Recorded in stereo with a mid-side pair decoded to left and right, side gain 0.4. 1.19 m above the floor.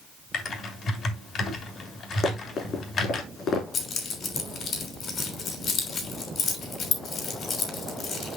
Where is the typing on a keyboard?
65° left, 3 m.